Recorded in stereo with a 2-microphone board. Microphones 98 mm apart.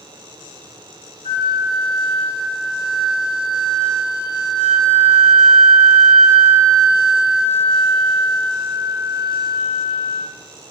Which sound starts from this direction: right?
A flute, at 1.2 s.